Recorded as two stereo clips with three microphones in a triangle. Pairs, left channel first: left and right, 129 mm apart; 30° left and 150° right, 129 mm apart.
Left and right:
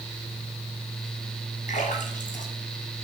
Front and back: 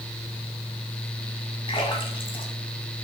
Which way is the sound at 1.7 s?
80° left.